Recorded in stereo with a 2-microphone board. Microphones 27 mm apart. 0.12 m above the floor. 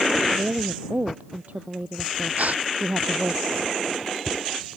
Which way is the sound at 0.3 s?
70° right (ahead or behind).